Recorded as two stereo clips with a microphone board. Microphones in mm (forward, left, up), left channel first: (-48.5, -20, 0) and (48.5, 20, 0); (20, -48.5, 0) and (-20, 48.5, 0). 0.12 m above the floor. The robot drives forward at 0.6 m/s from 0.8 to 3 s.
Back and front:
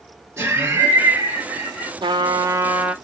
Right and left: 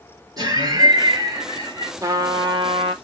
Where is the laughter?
80° left, 3 m; by 1.9 s 95° left, 3 m.